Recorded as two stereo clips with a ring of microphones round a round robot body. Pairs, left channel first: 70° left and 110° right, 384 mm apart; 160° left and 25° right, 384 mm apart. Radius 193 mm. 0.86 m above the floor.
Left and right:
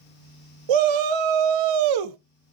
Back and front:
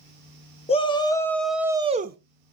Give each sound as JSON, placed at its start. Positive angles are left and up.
{"t": 0.7, "sound": "a shout", "azimuth_deg": -125, "distance_m": 1.5}